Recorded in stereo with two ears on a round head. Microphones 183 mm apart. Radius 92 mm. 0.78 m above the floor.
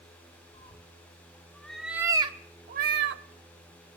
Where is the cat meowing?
30° left (ahead or behind), 1.5 m; by 3.2 s 65° right (ahead or behind), 1.0 m.